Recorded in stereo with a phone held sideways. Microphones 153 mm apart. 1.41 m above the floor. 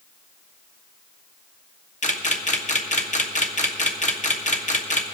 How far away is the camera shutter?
About 1.1 m.